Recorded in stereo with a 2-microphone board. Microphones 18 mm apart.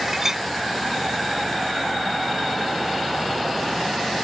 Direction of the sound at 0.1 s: 25° right (ahead or behind).